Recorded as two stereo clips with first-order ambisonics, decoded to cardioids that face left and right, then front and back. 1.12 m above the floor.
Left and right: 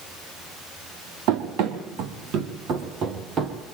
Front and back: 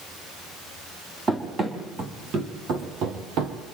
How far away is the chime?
No chime in this recording.